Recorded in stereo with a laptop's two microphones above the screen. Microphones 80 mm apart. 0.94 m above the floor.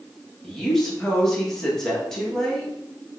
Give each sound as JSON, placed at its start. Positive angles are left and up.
{"t": 0.4, "sound": "a woman speaking", "side_deg": 5, "distance_m": 1.1}